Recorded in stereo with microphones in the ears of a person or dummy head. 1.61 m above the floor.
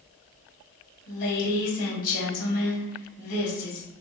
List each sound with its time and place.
1.1 s a woman speaking: 40° left (ahead or behind), 2.0 m